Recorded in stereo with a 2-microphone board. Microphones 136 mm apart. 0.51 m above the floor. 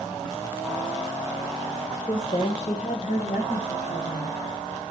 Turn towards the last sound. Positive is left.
turn(degrees=70)  # may be behind; listen again after turning